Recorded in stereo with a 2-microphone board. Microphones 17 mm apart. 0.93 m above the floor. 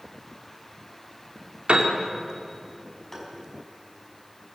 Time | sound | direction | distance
1.7 | a piano | 75° right (ahead or behind) | 3 m
3.1 | tapping | 15° left (ahead or behind) | 5 m